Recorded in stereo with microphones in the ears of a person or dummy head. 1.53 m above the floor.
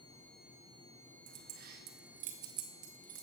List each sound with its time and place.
1.3 s keys jangling: 55° right (ahead or behind), 1.2 m